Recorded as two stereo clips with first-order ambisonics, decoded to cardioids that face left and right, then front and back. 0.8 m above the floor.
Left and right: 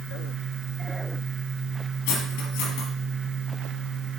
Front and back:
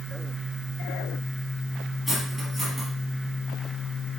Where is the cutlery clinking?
95° left, 4 m.